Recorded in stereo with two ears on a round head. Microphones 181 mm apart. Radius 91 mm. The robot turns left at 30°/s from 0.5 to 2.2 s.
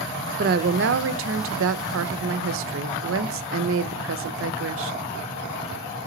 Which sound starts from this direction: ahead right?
A woman speaking, at 0.4 s.